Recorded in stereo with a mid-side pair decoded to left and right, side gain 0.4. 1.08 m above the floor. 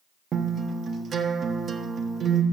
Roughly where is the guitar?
Ahead right.